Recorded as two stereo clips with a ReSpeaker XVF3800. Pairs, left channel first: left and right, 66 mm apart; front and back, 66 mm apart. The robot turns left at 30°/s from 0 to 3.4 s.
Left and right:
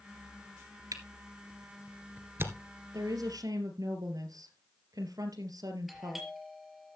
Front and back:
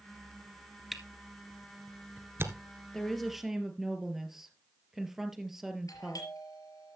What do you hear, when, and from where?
0.9 s a camera shutter: 90° right, 1.8 m; by 2.5 s 140° right, 1.8 m
2.9 s a woman speaking: 80° right, 2.5 m; by 6.3 s 95° right, 2.5 m
5.9 s a doorbell: straight ahead, 4.5 m